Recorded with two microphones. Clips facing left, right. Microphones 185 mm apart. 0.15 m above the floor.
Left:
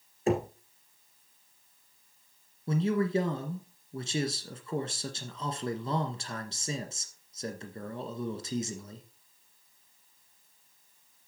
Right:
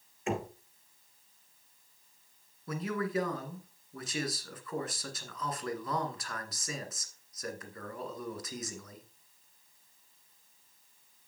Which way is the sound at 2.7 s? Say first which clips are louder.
Left 6 dB; 25° left (ahead or behind).